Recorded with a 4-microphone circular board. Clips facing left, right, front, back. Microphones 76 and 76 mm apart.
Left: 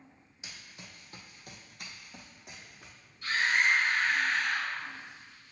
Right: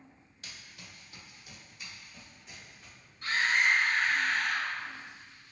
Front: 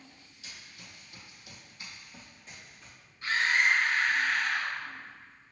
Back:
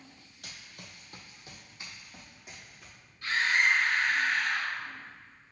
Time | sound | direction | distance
0.4 | running footsteps | 160° left | 0.8 m
3.2 | a scream | 60° right | 1.9 m